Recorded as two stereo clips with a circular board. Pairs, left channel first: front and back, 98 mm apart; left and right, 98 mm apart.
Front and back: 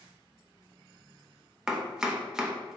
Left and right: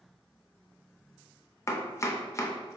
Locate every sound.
1.7 s chopping: 105° left, 0.6 m